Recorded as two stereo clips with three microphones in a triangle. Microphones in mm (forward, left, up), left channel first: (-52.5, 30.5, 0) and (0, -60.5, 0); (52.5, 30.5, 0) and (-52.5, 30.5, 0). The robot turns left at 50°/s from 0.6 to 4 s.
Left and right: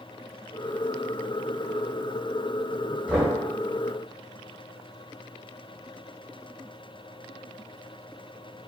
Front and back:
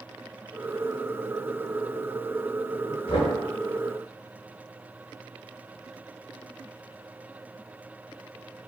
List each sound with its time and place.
3.1 s knocking: 25° left, 1.5 m; by 3.4 s 10° left, 1.5 m